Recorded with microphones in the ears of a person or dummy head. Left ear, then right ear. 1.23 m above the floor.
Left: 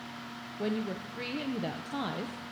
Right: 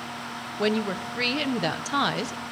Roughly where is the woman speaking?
Right.